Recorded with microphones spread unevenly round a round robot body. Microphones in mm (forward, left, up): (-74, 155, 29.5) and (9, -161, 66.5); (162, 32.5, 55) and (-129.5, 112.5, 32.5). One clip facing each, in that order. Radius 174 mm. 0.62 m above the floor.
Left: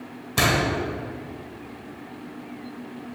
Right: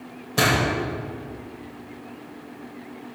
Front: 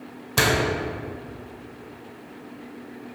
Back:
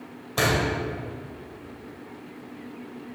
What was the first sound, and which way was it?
A door slam, 35° left.